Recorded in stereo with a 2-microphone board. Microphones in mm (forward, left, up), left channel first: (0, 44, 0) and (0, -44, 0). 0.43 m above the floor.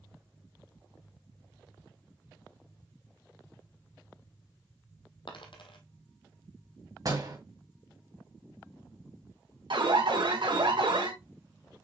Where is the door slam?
45° right (ahead or behind), 2 m.